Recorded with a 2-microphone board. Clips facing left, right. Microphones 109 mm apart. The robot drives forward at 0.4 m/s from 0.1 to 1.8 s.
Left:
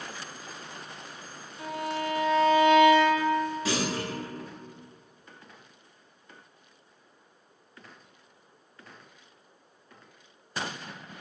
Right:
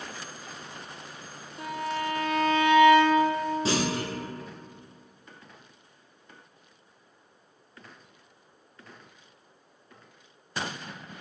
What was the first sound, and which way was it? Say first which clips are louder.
A violin: right 1 dB; 65° right (ahead or behind).